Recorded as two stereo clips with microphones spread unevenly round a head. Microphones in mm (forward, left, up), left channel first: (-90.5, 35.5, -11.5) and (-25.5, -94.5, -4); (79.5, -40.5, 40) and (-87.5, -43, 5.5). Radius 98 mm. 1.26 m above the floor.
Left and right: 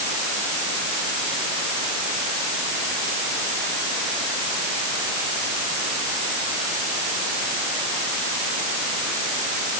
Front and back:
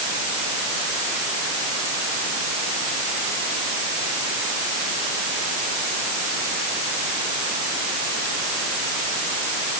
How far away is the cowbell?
No cowbell in this recording.